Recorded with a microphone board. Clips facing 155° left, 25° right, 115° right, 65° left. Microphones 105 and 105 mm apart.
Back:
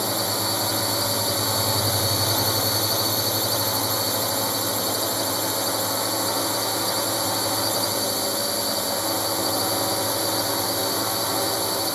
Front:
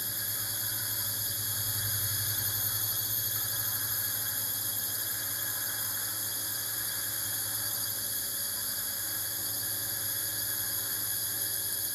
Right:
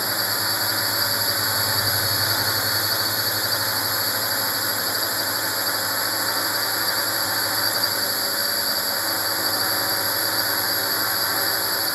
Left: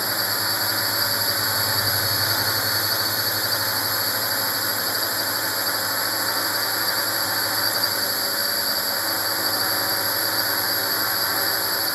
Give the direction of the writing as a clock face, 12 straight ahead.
I don't hear writing.